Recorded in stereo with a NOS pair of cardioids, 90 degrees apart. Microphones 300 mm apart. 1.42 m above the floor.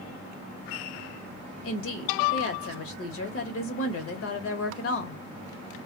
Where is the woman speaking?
50° left, 1.2 m.